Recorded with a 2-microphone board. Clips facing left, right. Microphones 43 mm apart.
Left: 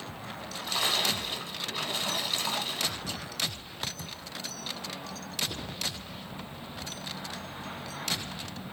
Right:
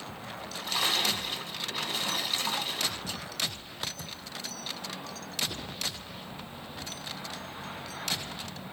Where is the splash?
Centre (ahead or behind), 1.2 m.